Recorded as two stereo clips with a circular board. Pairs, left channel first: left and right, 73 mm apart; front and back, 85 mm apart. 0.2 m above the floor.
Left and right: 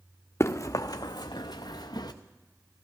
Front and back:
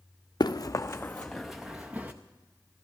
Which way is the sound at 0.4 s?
35° left.